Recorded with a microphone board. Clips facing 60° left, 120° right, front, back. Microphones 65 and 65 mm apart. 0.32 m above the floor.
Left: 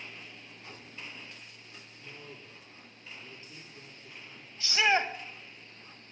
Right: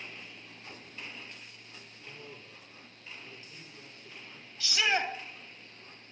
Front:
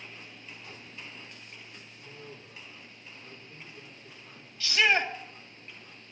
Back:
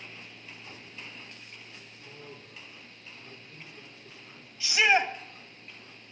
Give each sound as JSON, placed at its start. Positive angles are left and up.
{"t": 2.0, "sound": "a man speaking", "azimuth_deg": 105, "distance_m": 8.0}
{"t": 4.6, "sound": "a shout", "azimuth_deg": 110, "distance_m": 2.0}